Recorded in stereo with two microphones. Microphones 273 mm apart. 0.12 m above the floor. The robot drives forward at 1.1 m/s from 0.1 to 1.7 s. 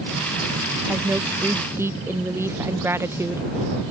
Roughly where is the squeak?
No squeak in this recording.